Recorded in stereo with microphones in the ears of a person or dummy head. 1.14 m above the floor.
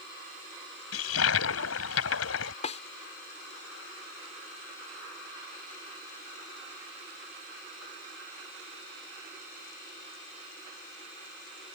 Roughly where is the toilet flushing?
Left.